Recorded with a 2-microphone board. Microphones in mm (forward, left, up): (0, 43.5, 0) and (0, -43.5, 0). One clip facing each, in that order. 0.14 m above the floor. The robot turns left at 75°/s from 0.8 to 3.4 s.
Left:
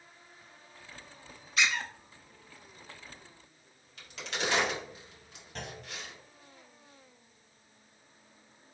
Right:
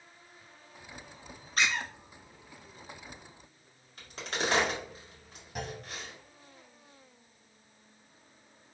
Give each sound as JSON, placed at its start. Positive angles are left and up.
{"t": 1.6, "sound": "a squeak", "side_deg": -45, "distance_m": 0.8}
{"t": 4.0, "sound": "a crack", "side_deg": -35, "distance_m": 1.9}
{"t": 5.5, "sound": "a clunk", "side_deg": -10, "distance_m": 0.7}